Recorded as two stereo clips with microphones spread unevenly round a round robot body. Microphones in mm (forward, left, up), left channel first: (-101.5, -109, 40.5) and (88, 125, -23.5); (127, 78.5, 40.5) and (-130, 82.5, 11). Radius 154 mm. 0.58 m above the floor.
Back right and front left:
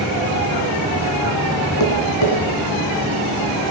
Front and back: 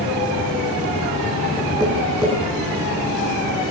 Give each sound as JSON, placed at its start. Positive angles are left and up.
{"t": 1.8, "sound": "tapping", "azimuth_deg": -105, "distance_m": 7.5}